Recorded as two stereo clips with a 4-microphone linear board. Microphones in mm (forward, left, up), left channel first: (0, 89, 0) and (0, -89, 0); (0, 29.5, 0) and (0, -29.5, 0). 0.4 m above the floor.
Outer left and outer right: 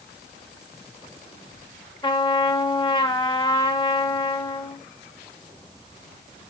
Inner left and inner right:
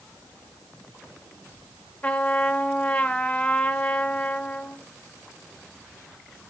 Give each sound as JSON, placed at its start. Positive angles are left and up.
{"t": 2.0, "sound": "a trumpet", "side_deg": 25, "distance_m": 1.4}